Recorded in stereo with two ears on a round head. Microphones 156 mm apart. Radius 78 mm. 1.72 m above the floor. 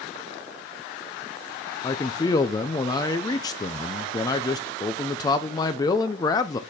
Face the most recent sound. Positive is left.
turn(degrees=20)  # may be behind; listen again after turning